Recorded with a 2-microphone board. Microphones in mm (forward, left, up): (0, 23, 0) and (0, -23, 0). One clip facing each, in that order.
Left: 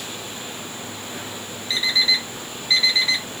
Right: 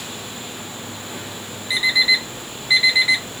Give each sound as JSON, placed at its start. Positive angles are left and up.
{"t": 1.7, "sound": "an alarm clock", "side_deg": -15, "distance_m": 1.4}